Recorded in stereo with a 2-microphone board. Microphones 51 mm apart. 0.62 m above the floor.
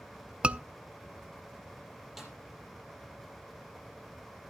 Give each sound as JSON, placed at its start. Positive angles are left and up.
{"t": 0.4, "sound": "a scream", "side_deg": -20, "distance_m": 0.6}
{"t": 2.2, "sound": "a snare drum", "side_deg": -5, "distance_m": 5.0}